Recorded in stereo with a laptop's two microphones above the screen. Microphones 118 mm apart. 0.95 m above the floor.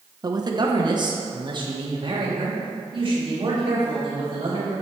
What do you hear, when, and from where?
0.2 s a man speaking: 35° right (ahead or behind), 0.6 m; by 4.7 s 45° right (ahead or behind), 3 m